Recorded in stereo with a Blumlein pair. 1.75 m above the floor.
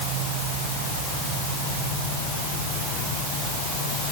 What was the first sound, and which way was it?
Only background noise.